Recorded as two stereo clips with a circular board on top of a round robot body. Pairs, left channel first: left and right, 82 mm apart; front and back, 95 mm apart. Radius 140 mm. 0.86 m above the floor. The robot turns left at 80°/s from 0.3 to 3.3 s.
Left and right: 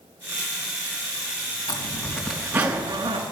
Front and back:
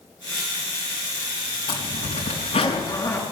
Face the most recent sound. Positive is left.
turn(degrees=-80)